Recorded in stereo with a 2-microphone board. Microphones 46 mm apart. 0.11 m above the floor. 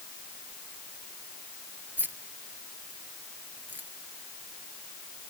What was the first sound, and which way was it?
Keys jangling, 45° right (ahead or behind).